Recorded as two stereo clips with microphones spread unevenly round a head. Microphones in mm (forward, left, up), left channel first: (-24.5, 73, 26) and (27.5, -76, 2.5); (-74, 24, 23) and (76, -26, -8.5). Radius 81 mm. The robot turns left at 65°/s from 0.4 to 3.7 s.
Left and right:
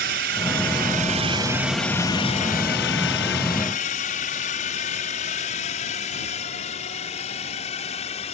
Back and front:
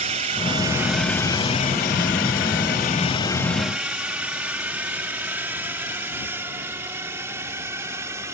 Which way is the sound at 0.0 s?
65° right.